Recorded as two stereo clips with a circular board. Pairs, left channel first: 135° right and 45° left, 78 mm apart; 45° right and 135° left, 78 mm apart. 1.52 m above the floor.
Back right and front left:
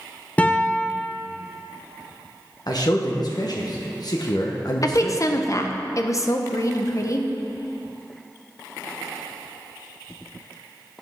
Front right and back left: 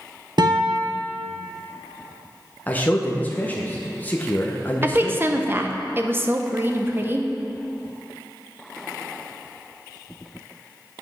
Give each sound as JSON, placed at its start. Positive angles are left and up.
{"t": 0.4, "sound": "a guitar", "azimuth_deg": 155, "distance_m": 0.8}
{"t": 2.7, "sound": "a man speaking", "azimuth_deg": -110, "distance_m": 0.9}
{"t": 4.8, "sound": "a woman speaking", "azimuth_deg": -170, "distance_m": 0.7}